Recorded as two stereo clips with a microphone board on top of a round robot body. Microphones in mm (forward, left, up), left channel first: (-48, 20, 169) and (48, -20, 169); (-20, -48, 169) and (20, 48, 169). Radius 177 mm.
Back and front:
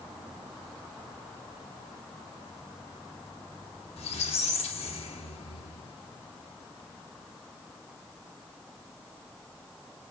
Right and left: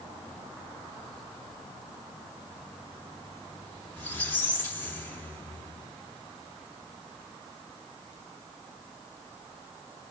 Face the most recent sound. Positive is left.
turn(degrees=175)